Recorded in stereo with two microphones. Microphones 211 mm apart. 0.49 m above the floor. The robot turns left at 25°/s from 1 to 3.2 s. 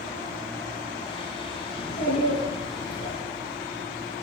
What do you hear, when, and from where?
1.7 s a child speaking: 130° left, 4 m; by 3.2 s 95° left, 4 m